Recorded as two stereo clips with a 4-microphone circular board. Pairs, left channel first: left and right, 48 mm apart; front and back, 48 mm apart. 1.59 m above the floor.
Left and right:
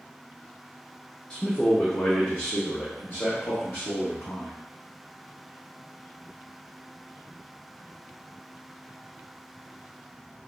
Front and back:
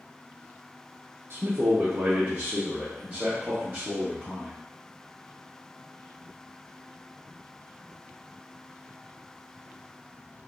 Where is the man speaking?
155° left, 0.7 m; by 4.6 s 105° left, 2.5 m.